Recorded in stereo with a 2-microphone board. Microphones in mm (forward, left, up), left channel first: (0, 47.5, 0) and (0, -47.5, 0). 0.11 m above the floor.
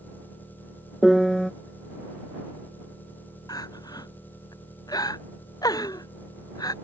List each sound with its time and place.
0.0 s an engine running: 20° left (ahead or behind)
1.0 s a piano: centre (ahead or behind)
3.5 s crying: 45° left (ahead or behind)